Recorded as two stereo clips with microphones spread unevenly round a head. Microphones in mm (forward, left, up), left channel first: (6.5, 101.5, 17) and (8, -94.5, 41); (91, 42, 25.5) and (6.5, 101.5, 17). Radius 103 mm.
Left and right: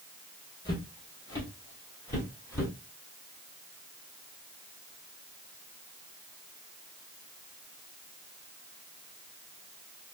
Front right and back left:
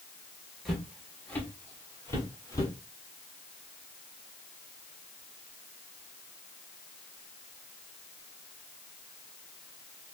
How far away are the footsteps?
About 1.2 m.